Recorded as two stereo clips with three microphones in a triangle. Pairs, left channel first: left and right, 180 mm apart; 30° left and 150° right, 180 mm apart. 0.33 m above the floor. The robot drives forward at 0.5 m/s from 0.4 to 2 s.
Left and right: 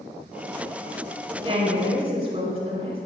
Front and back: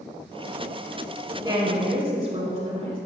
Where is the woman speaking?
105° right, 1.4 m; by 3.0 s 125° right, 1.5 m.